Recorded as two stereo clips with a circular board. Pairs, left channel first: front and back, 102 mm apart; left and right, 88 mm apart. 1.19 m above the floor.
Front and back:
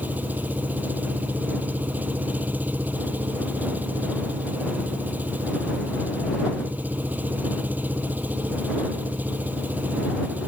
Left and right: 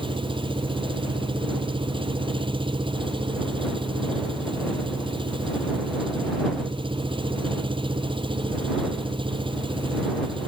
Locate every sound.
0.0 s an engine running: 105° right